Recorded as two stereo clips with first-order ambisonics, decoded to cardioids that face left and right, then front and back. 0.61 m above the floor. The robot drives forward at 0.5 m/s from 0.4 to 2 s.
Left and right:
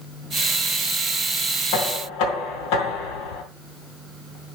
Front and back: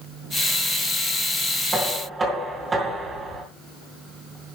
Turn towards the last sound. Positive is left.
turn(degrees=110)